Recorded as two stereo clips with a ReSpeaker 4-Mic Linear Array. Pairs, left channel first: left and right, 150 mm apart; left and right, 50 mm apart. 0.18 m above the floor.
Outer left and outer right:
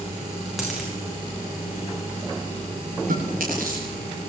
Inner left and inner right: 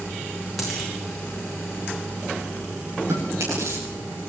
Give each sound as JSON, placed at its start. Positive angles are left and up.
{"t": 0.6, "sound": "a dropped coin", "side_deg": 0, "distance_m": 5.0}
{"t": 3.1, "sound": "chewing", "side_deg": -75, "distance_m": 8.5}